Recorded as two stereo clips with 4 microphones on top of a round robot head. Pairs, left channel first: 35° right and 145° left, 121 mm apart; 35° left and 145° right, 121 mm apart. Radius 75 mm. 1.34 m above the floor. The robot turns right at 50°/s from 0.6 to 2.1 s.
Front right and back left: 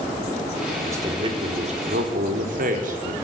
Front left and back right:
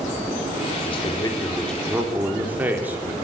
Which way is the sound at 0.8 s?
75° left.